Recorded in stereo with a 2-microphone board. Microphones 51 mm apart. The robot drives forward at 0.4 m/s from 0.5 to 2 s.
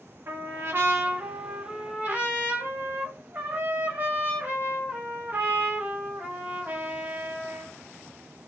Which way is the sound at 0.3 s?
55° right (ahead or behind).